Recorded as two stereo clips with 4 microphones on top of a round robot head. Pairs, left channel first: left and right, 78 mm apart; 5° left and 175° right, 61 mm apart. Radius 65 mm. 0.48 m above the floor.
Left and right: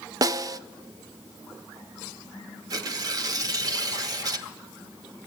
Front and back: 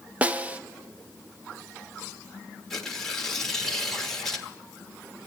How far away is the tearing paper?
About 1.3 m.